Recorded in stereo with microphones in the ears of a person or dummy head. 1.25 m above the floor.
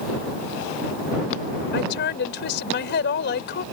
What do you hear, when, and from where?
1.7 s a woman speaking: 65° left (ahead or behind)